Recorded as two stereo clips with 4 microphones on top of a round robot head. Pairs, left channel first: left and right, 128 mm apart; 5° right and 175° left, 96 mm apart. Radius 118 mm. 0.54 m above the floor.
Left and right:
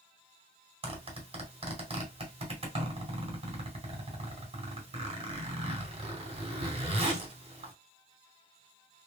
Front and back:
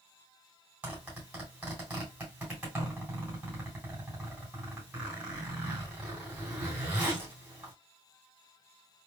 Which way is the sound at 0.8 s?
115° right.